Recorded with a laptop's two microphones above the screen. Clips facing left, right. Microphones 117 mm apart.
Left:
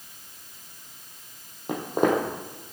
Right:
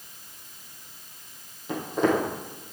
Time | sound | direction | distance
1.7 | footsteps | 60° left (ahead or behind) | 2.5 m